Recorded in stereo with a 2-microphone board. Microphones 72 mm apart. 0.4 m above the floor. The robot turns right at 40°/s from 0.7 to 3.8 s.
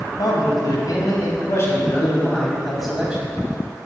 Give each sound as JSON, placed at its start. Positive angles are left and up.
{"t": 0.2, "sound": "a man speaking", "azimuth_deg": 95, "distance_m": 3.0}